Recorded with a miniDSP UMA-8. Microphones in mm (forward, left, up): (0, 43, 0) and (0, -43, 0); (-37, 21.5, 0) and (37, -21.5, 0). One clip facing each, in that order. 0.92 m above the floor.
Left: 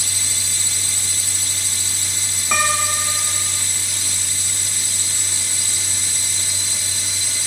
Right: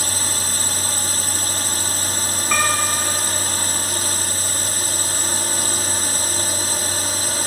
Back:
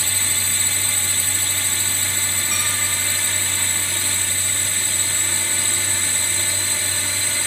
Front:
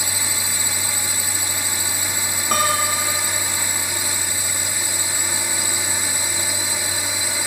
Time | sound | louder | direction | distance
0.0 | a drone | right 6 dB, front 1 dB | 100° right | ?
2.5 | a piano | left 1 dB, front 12 dB | 5° left | ?